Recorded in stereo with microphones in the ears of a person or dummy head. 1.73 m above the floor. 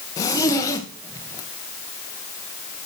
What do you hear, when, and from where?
0.2 s a zipper: 25° left (ahead or behind), 1.7 m